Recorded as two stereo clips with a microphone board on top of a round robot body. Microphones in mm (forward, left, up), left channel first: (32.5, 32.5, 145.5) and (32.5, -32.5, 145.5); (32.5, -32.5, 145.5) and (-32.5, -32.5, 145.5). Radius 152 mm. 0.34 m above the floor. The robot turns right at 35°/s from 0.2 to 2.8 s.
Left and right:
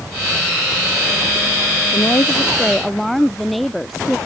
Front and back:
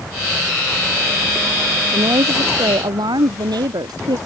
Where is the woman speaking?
150° left; by 4.2 s straight behind.